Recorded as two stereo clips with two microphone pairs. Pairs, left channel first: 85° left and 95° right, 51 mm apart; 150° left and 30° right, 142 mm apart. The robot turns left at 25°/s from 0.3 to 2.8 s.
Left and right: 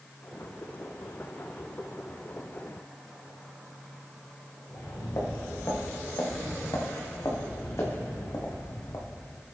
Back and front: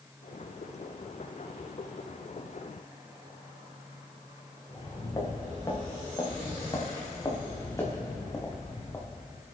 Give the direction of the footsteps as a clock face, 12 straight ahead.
9 o'clock.